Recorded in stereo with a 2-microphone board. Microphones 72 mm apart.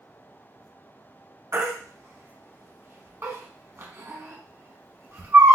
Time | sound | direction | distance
1.5 | a baby crying | 40° right (ahead or behind) | 0.8 m